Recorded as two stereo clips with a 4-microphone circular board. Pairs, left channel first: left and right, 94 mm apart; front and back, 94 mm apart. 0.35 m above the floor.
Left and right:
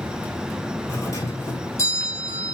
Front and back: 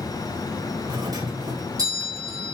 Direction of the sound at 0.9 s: 140° left.